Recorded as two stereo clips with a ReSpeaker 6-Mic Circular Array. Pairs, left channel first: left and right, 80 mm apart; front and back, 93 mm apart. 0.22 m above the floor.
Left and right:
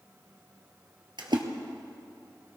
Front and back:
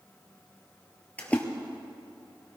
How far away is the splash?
About 1.4 m.